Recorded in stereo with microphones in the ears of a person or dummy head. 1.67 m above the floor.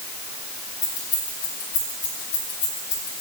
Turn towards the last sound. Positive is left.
turn(degrees=35)  # may be behind; listen again after turning